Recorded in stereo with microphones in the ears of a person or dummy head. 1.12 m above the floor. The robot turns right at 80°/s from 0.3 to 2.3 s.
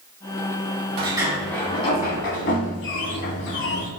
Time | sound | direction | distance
1.0 | a sliding door | 35° right | 1.8 m